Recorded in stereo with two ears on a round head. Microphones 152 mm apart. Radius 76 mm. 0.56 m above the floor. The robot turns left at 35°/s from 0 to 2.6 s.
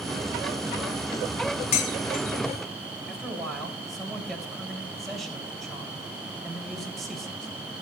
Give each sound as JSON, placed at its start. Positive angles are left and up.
{"t": 1.7, "sound": "dishes clattering", "side_deg": 45, "distance_m": 1.6}
{"t": 3.1, "sound": "a man speaking", "side_deg": 0, "distance_m": 3.0}